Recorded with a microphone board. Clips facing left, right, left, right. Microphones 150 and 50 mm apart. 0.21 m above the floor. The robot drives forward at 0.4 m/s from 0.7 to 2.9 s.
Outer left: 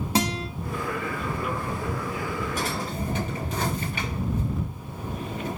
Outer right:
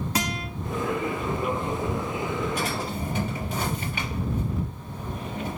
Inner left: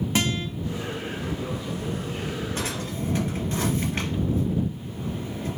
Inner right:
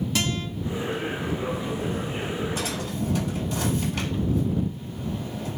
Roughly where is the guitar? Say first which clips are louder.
Outer left 6 dB, inner left 4 dB; left.